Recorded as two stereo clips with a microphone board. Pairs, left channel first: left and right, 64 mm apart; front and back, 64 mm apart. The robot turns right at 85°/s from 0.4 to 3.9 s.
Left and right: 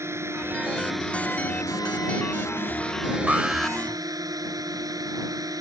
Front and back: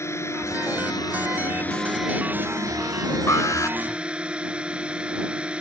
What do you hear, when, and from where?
0.0 s a drone: 45° right; by 5.6 s 105° right
3.3 s an alarm: 25° right; by 3.8 s 15° left